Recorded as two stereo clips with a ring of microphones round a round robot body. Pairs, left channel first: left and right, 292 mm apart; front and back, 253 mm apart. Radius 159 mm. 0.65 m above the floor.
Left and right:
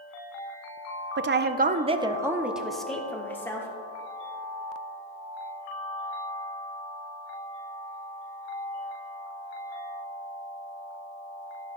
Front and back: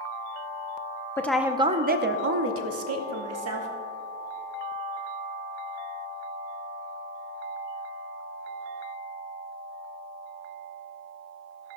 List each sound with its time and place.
1.2 s a woman speaking: 75° right, 0.6 m; by 3.7 s 170° left, 1.6 m